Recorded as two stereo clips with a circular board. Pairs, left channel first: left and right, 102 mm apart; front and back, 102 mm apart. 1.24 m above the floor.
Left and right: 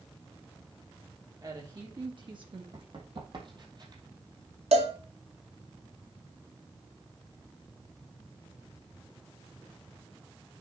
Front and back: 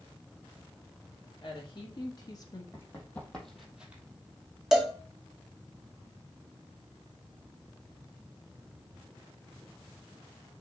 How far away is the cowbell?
About 1.6 m.